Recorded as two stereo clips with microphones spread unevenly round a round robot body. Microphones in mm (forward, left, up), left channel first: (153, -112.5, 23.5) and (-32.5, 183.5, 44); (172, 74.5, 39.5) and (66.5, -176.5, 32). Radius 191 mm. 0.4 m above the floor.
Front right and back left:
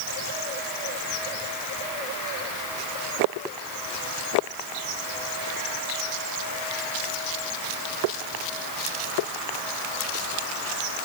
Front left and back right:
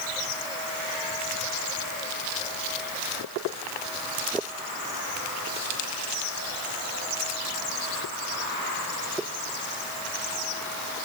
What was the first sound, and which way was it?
Only background noise.